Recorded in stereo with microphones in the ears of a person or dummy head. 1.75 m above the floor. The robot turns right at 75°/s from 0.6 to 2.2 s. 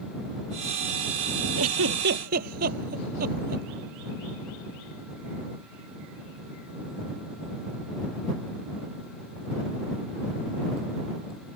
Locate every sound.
1.6 s a giggle: 80° right; by 3.7 s 50° right (ahead or behind)